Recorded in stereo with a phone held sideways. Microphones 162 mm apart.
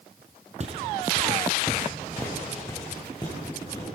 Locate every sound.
0.6 s footsteps: 45° right (ahead or behind), 1.6 m; by 3.9 s 30° left (ahead or behind), 4.5 m